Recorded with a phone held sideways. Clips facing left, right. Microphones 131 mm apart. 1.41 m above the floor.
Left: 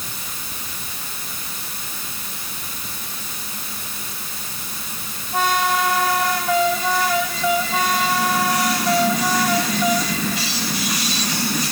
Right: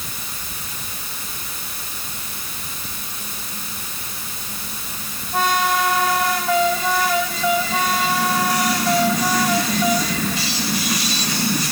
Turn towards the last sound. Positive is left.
No sound to turn to.